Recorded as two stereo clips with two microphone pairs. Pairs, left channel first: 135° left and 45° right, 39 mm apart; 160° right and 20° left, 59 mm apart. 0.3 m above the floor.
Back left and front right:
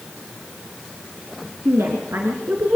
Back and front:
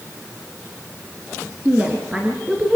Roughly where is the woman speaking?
Ahead right.